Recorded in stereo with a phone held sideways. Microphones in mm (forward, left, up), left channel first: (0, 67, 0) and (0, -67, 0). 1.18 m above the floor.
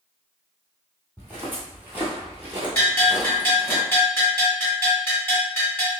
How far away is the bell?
About 1.4 m.